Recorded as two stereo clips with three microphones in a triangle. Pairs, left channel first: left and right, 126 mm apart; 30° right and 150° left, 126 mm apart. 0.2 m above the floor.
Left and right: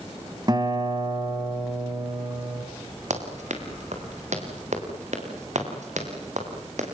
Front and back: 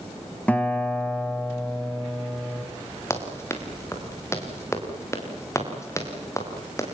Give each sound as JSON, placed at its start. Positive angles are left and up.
{"t": 0.5, "sound": "a guitar", "azimuth_deg": -100, "distance_m": 2.0}
{"t": 3.1, "sound": "running footsteps", "azimuth_deg": -100, "distance_m": 5.5}